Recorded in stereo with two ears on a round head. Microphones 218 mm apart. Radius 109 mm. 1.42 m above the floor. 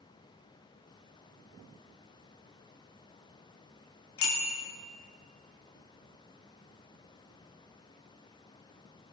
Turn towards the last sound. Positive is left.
turn(degrees=55)  # may be behind; listen again after turning